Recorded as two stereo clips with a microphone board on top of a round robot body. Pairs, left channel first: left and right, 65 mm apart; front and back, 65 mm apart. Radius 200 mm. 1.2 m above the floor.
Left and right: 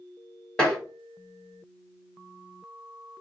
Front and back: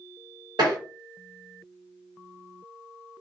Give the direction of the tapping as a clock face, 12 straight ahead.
6 o'clock.